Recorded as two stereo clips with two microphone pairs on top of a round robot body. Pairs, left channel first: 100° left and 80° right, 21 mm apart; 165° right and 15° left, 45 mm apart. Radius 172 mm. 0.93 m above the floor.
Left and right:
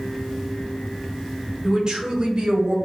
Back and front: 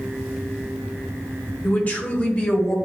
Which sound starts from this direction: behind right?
A man speaking, at 1.6 s.